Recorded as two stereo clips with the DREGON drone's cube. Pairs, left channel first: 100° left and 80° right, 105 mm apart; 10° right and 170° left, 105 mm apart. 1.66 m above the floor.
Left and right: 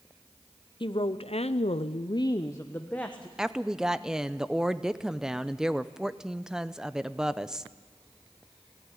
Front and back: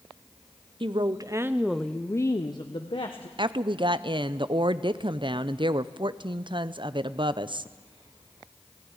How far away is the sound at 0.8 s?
About 0.9 m.